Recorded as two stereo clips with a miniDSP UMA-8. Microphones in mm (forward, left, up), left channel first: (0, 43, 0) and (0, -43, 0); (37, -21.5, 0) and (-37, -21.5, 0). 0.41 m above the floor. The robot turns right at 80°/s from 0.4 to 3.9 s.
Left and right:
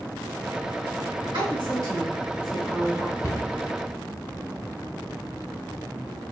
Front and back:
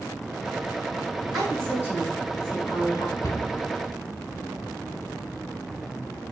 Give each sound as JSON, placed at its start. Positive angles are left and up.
{"t": 1.3, "sound": "a woman speaking", "azimuth_deg": -95, "distance_m": 2.0}
{"t": 3.2, "sound": "a cupboard door", "azimuth_deg": 35, "distance_m": 0.8}